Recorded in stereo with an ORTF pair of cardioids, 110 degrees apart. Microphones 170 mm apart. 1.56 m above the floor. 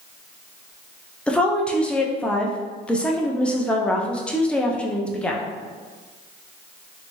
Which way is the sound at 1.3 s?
5° left.